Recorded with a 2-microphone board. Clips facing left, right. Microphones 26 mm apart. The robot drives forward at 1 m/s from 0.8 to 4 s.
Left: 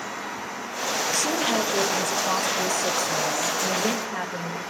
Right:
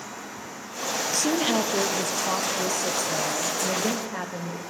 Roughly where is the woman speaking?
Centre.